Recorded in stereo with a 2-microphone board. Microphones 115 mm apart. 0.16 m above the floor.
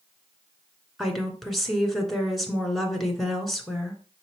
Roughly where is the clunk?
No clunk in this recording.